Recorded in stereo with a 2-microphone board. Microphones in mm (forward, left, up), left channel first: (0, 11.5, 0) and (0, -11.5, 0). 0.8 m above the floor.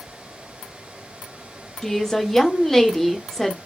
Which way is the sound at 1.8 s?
15° left (ahead or behind).